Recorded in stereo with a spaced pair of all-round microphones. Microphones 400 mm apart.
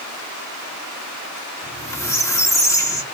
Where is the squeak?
10° left (ahead or behind), 1.8 m.